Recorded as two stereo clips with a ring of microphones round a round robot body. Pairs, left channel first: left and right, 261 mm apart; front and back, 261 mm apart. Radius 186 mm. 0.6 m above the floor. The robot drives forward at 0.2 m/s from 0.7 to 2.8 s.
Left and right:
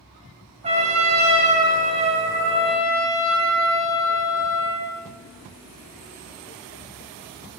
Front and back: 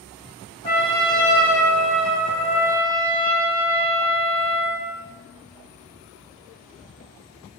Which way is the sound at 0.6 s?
50° right.